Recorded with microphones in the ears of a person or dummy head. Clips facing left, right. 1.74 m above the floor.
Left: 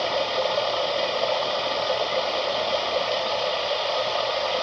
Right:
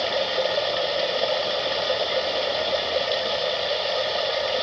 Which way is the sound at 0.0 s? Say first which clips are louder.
Even; 20° right (ahead or behind).